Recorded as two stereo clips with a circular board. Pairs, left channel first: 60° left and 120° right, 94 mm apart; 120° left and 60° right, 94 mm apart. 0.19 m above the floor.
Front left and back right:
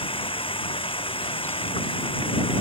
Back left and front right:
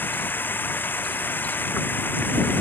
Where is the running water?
50° left.